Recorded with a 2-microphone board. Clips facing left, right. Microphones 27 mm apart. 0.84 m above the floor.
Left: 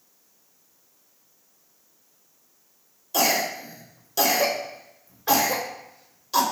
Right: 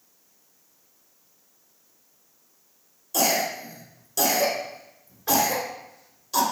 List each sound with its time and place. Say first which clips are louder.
3.1 s a cough: left 1 dB; 20° left (ahead or behind), 2.5 m